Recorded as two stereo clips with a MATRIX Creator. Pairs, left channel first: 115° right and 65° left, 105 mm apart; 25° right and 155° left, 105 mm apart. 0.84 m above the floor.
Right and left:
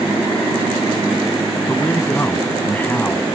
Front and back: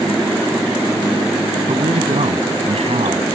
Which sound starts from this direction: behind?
A man speaking, at 1.7 s.